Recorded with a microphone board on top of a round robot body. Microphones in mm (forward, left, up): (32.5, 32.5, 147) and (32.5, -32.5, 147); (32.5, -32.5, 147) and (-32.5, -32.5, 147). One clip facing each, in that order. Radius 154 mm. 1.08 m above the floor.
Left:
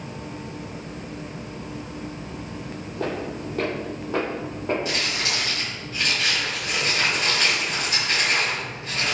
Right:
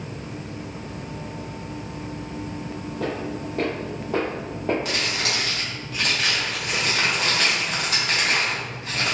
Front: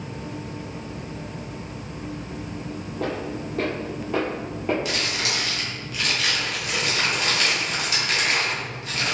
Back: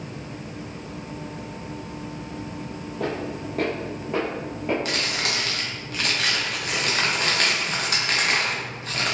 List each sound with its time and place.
3.0 s footsteps: 160° left, 1.2 m; by 4.8 s 90° right, 1.2 m
4.8 s crumpling: 135° right, 0.6 m